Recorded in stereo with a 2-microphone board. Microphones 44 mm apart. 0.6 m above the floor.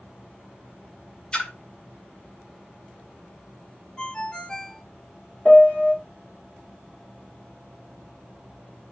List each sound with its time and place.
1.3 s a splash: 25° left (ahead or behind), 1.0 m
4.0 s a ringtone: 20° left (ahead or behind), 0.6 m
5.5 s a piano: 40° left (ahead or behind), 0.9 m